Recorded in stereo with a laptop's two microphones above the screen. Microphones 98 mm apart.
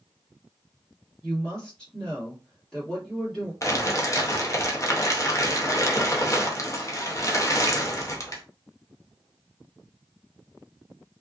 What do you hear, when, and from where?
1.2 s a woman speaking: 5° left (ahead or behind), 1.6 m
3.6 s crumpling: 30° left (ahead or behind), 0.6 m